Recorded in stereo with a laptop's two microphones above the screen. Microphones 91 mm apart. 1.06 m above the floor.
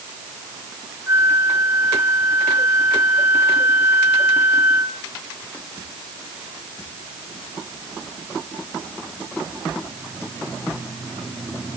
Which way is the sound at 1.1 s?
20° right (ahead or behind).